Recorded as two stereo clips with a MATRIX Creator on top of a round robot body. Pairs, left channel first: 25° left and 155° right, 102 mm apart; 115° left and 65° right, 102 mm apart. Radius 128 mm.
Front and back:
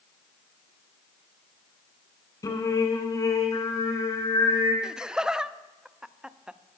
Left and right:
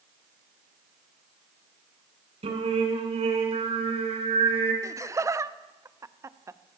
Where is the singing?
40° right, 2.5 m.